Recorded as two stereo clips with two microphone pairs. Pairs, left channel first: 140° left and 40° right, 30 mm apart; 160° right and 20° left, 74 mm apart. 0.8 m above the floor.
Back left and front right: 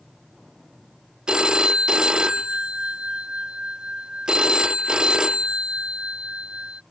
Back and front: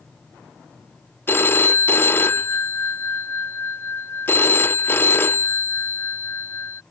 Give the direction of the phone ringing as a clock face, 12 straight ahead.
3 o'clock.